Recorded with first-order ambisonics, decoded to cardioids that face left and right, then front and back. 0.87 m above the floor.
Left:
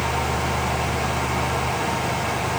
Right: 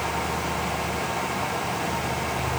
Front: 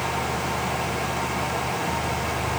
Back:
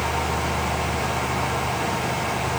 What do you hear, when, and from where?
Only background noise.